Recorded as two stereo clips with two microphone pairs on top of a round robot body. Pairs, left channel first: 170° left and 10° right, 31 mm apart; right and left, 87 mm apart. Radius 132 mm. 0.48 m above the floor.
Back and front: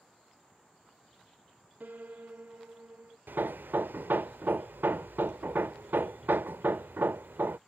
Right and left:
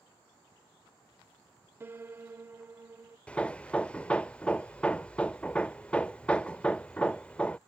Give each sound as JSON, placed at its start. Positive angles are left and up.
{"t": 1.8, "sound": "a piano", "azimuth_deg": 20}
{"t": 3.3, "sound": "hammering", "azimuth_deg": -15}